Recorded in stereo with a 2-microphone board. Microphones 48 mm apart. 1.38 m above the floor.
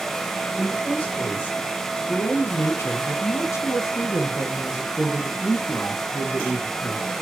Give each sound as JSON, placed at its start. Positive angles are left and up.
{"t": 0.6, "sound": "a woman speaking", "side_deg": 35, "distance_m": 1.9}